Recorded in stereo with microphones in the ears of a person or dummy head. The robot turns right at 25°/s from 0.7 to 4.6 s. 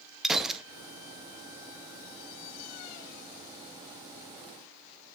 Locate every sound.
0.2 s a gunshot: centre (ahead or behind), 0.8 m